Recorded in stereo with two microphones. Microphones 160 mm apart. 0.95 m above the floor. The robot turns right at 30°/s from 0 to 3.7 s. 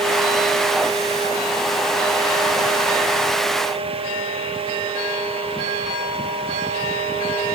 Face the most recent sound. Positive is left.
No sound to turn to.